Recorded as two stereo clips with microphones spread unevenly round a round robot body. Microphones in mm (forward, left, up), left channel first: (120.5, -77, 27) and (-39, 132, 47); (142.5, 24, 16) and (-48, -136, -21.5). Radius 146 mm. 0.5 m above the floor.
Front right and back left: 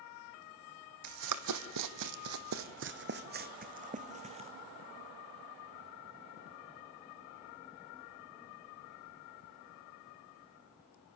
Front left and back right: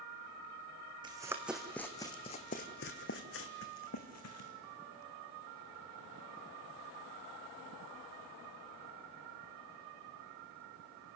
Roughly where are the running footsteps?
Behind left.